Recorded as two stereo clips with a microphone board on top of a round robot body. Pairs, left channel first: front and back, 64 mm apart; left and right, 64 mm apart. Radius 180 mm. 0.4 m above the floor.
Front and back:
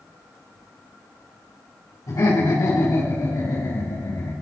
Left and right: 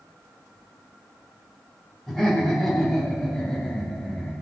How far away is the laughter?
About 5 m.